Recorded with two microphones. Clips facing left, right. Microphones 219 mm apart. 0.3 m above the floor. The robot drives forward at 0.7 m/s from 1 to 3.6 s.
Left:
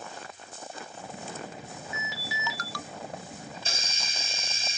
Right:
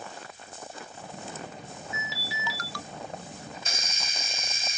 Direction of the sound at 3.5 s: 30° left (ahead or behind).